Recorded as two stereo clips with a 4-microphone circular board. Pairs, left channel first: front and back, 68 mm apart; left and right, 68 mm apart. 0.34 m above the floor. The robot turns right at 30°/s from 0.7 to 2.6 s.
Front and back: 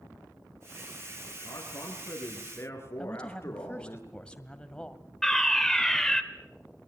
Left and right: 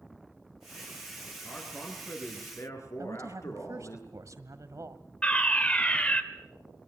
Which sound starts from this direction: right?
A woman speaking, at 3.0 s.